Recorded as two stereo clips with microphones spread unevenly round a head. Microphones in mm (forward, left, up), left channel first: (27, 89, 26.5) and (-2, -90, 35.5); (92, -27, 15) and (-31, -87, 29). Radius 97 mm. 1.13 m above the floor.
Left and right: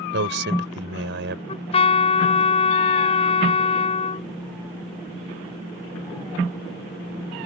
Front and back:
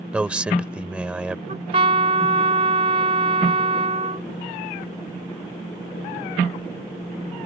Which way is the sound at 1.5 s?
140° left.